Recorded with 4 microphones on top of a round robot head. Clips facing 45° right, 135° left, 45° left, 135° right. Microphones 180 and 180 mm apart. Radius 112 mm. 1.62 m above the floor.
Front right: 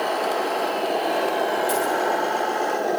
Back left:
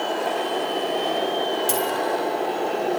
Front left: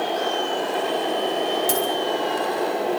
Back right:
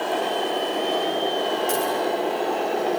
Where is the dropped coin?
95° left, 9 m.